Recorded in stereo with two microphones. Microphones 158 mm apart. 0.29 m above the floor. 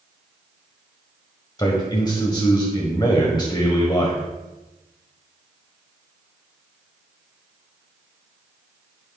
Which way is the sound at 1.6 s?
25° left (ahead or behind).